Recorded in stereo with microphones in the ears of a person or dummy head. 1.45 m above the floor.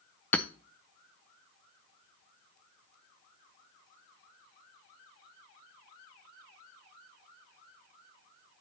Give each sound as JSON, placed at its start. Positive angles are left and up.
{"t": 0.3, "sound": "hammering", "side_deg": 10, "distance_m": 0.5}